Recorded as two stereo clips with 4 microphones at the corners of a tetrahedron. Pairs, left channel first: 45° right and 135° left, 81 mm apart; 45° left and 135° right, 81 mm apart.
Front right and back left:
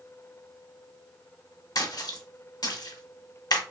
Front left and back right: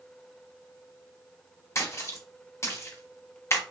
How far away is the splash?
About 0.6 m.